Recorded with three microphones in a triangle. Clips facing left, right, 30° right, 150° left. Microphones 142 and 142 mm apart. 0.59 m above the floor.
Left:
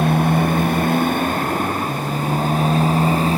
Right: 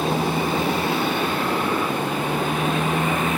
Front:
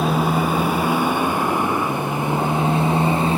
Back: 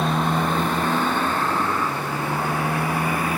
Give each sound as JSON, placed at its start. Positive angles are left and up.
{"t": 0.0, "sound": "a motorcycle", "azimuth_deg": 55}